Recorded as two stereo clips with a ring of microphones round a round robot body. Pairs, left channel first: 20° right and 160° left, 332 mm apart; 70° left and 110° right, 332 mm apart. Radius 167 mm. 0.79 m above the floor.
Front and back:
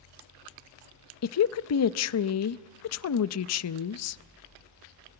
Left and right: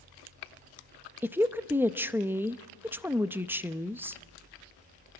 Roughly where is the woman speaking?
Ahead right.